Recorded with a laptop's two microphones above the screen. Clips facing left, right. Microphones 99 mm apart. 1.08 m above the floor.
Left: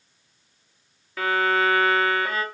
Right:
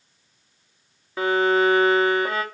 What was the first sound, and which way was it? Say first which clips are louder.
A violin: right 3 dB; 25° right (ahead or behind).